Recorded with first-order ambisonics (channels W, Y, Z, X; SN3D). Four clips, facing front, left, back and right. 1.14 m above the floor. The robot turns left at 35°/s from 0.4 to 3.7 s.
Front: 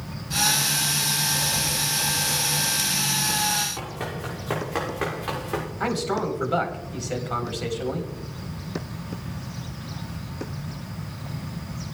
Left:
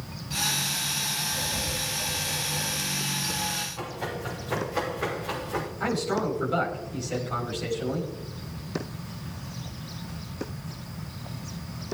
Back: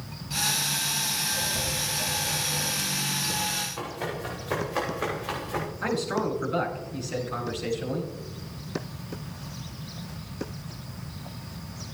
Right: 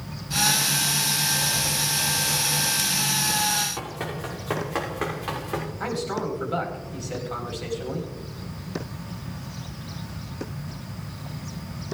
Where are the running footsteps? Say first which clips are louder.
Right 2 dB, front 1 dB; 60° right, 6 m; by 5.7 s 40° right, 7 m.